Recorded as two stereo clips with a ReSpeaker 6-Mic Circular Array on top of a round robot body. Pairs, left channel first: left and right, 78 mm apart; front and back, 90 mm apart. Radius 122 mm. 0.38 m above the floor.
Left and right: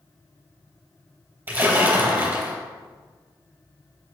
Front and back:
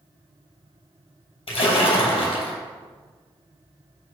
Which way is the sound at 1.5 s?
25° right.